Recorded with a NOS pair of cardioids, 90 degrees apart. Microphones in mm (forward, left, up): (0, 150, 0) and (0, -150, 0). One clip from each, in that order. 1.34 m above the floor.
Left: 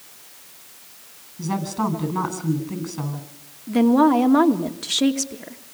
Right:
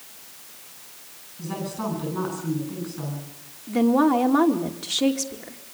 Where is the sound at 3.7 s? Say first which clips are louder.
Left 3 dB; 25° left, 2.5 m.